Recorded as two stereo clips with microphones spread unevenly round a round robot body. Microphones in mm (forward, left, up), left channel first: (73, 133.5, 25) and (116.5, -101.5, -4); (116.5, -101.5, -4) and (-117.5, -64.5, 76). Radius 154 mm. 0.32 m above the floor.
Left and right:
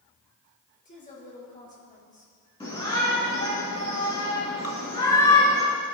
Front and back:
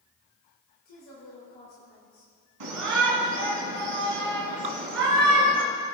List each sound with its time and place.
0.8 s a woman speaking: 45° left, 6 m
2.6 s a shout: 175° left, 3 m
4.6 s dripping: 150° left, 1.0 m